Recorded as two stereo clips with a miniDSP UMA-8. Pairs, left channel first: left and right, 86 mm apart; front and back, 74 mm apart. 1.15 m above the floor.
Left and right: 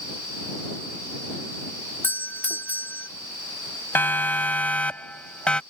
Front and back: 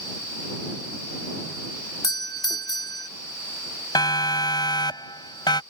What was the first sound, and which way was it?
A doorbell, 25° left.